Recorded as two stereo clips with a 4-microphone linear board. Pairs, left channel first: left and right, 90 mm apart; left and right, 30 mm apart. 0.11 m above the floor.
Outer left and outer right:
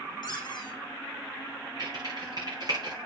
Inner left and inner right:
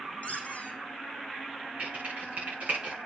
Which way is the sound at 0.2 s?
50° left (ahead or behind).